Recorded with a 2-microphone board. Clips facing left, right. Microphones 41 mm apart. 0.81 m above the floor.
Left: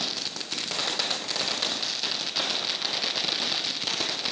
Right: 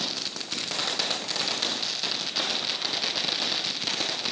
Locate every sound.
Only background noise.